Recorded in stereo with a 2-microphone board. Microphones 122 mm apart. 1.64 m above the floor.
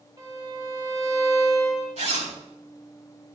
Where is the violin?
35° right (ahead or behind), 4 m.